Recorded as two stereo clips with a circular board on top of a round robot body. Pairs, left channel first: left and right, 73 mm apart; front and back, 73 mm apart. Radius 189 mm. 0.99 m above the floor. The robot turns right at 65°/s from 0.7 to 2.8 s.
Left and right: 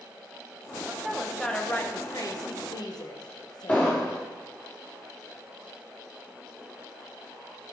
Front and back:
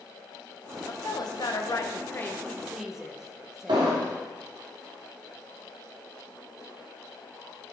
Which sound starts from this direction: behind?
An explosion, at 3.7 s.